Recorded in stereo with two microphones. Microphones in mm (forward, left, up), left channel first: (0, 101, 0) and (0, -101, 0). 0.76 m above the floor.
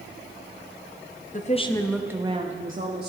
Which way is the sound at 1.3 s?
40° left (ahead or behind).